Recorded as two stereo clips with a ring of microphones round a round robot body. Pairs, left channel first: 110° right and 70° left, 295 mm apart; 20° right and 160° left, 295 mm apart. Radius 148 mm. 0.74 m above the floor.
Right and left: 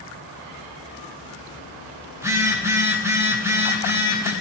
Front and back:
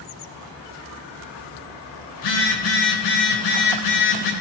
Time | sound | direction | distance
2.1 | a phone buzzing | 15° right | 3.5 m